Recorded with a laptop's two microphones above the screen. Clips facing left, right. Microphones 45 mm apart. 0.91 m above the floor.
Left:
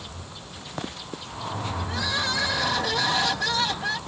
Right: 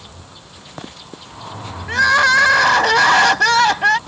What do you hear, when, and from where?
1.9 s crying: 60° right (ahead or behind)